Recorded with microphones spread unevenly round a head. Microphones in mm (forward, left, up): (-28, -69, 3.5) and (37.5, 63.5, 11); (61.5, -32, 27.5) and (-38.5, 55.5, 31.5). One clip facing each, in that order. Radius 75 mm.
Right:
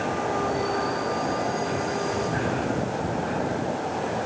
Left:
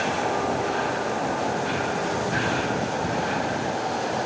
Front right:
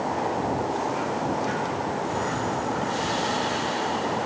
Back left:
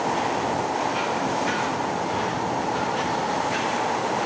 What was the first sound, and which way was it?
Only background noise.